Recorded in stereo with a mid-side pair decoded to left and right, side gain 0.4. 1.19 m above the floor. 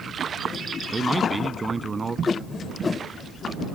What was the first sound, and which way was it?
A man speaking, 25° right.